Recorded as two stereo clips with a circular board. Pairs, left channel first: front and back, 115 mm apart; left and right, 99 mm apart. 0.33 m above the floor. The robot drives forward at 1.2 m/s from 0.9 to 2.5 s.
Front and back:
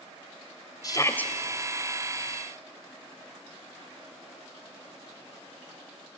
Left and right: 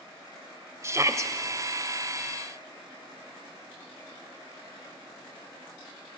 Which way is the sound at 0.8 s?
40° right.